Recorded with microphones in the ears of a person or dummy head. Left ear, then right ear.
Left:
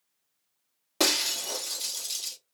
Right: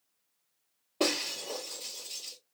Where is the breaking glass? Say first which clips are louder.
Left 5 dB; 60° left (ahead or behind), 1.1 m.